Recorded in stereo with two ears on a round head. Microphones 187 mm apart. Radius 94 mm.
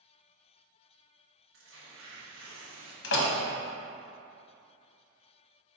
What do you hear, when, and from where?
1.5 s tearing paper: 70° right (ahead or behind), 1.1 m
3.0 s a door slam: 55° left (ahead or behind), 0.8 m